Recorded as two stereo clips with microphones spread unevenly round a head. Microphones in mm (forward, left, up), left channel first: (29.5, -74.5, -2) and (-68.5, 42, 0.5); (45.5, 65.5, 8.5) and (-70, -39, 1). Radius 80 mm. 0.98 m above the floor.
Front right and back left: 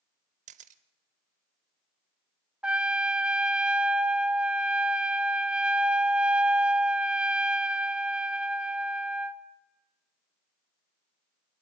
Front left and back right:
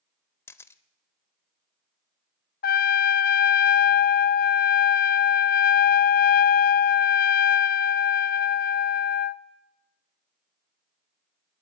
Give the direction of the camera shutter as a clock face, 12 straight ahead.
8 o'clock.